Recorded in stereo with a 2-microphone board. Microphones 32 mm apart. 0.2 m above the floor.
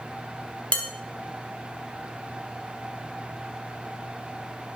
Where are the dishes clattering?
40° left (ahead or behind), 0.9 m.